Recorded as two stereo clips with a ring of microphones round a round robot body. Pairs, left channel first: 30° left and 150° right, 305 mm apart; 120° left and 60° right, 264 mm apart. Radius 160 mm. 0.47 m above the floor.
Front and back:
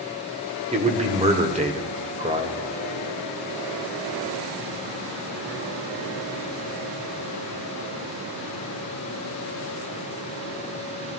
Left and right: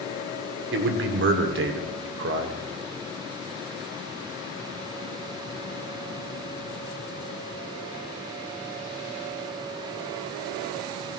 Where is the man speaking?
85° right, 1.4 m.